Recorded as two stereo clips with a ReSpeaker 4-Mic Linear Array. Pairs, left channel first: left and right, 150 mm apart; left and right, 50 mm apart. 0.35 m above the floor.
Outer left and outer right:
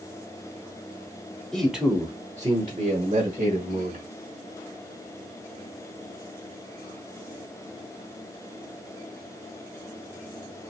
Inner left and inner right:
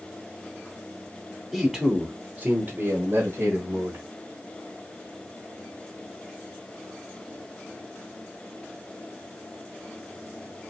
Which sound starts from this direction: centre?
A man speaking, at 1.5 s.